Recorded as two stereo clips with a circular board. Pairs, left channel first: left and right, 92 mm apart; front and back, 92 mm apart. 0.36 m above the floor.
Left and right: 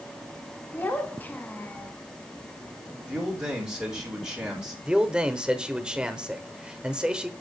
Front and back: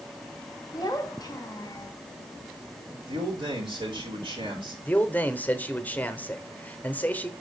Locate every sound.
0.7 s a child speaking: 25° left, 1.1 m
3.1 s a man speaking: 170° right, 3.5 m
4.8 s a man speaking: 30° right, 0.9 m